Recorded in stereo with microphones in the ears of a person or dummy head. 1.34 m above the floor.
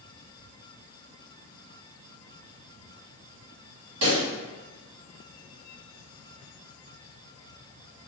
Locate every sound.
4.0 s a pop: 65° right (ahead or behind), 1.9 m